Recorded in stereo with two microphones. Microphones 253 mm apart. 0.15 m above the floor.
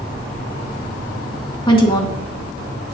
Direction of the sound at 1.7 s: 20° left (ahead or behind).